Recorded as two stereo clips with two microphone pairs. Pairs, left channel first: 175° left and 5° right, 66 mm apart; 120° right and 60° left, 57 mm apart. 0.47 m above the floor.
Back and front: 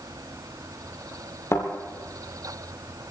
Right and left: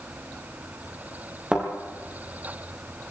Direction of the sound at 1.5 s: 135° left.